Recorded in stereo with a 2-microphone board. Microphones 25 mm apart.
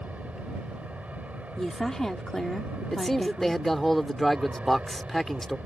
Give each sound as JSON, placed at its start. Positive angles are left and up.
{"t": 0.0, "sound": "an aircraft", "side_deg": -70}
{"t": 1.6, "sound": "a woman speaking", "side_deg": 20}
{"t": 2.9, "sound": "a man speaking", "side_deg": 10}